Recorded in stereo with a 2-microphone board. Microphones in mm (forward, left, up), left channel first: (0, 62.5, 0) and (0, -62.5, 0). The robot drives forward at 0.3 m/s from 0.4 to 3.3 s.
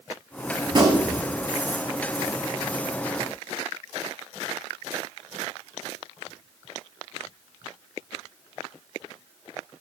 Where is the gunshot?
40° right (ahead or behind), 1.0 m; by 1.3 s 30° right (ahead or behind), 1.1 m.